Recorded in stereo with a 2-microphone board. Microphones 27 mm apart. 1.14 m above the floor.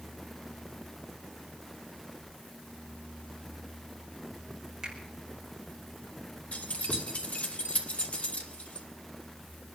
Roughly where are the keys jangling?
Left.